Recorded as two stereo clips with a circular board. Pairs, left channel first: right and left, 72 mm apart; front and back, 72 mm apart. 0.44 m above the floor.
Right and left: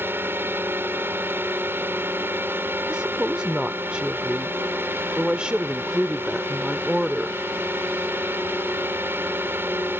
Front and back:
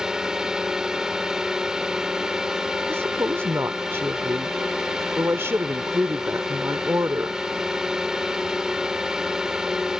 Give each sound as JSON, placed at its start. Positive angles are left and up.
{"t": 0.0, "sound": "a drone", "azimuth_deg": 105}
{"t": 2.9, "sound": "a woman speaking", "azimuth_deg": 160}